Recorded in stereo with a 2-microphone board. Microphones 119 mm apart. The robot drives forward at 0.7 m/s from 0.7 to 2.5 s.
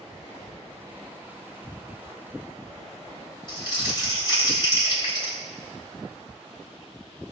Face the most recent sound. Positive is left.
turn(degrees=40)  # may be behind; listen again after turning